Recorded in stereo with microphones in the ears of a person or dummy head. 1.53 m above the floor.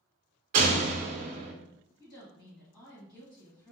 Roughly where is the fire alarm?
I don't hear a fire alarm.